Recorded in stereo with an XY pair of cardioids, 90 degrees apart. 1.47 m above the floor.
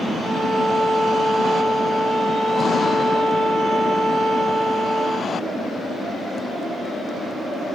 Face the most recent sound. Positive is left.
turn(degrees=-65)